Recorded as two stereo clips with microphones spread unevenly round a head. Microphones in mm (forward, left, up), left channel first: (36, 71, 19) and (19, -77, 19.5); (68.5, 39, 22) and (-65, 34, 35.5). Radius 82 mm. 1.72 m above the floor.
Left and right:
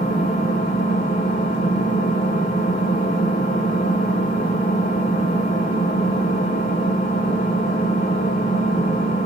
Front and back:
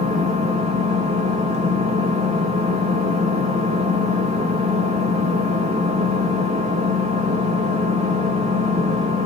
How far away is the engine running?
About 2 m.